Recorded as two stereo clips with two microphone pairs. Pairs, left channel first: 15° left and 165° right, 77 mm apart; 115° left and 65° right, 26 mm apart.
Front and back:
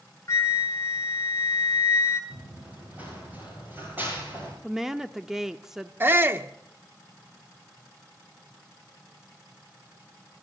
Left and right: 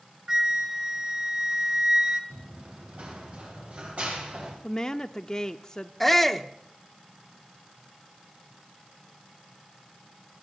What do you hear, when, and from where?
0.3 s a flute: 15° right, 1.2 m
2.3 s running footsteps: 90° right, 7.5 m; by 4.5 s 100° right, 8 m
4.6 s a woman speaking: 125° left, 0.7 m
6.0 s a shout: 165° right, 0.7 m